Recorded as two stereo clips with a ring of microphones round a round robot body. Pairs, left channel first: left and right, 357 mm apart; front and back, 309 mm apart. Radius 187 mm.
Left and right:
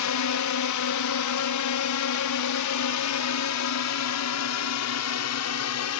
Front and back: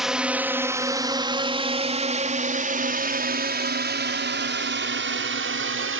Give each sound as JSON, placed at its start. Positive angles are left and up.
{"t": 0.0, "sound": "a drone", "azimuth_deg": 90}